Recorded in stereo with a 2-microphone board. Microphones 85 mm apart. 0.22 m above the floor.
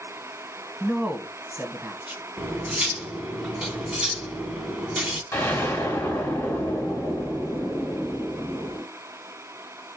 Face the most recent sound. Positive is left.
turn(degrees=25)  # may be behind; listen again after turning